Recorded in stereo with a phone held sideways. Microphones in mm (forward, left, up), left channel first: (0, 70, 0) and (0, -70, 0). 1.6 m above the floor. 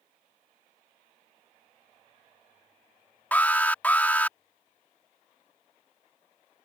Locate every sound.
3.3 s an alarm: 10° left (ahead or behind)